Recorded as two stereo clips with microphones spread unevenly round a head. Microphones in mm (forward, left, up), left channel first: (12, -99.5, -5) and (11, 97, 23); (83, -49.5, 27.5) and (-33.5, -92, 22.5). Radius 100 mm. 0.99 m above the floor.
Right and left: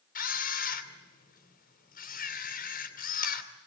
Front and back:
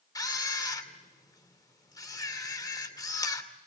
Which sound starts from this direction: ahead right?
A camera shutter, at 0.1 s.